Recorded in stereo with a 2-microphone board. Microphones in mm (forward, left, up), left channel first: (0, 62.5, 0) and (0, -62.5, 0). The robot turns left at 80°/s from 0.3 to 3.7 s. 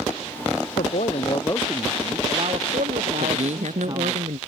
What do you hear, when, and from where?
0.8 s a man speaking: 85° left; by 4.2 s 150° right
3.2 s a man speaking: 55° right; by 4.4 s 95° right